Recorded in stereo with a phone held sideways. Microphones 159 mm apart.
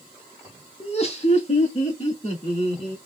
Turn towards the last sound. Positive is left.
turn(degrees=45)  # may be behind; listen again after turning